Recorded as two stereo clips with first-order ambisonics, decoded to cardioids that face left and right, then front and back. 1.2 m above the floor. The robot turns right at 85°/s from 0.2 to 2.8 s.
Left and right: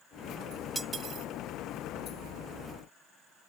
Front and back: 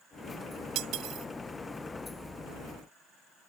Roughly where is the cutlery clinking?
Behind.